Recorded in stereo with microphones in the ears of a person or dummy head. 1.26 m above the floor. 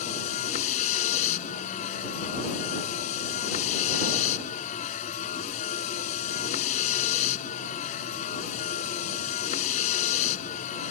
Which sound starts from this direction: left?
A vehicle, at 0.0 s.